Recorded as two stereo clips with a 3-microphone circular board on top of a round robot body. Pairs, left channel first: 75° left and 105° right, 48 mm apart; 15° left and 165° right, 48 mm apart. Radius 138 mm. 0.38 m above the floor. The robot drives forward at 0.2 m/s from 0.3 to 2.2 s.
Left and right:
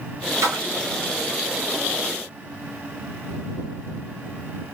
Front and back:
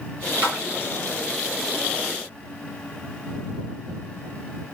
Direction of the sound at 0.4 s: 100° right.